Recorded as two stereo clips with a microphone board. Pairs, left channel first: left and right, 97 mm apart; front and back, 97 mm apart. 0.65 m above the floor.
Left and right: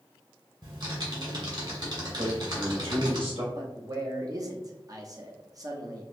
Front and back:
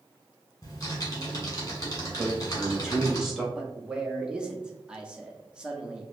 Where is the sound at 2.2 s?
95° right, 1.5 m.